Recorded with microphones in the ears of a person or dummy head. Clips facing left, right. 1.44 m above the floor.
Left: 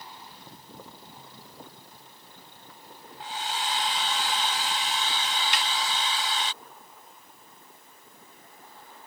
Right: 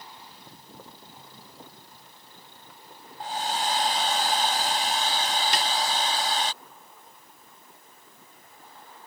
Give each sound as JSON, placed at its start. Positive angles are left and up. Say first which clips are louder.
{"t": 3.2, "sound": "a hair dryer", "louder": "right 4 dB", "side_deg": -35}
{"t": 5.5, "sound": "a snare drum", "louder": "right 4 dB", "side_deg": -30}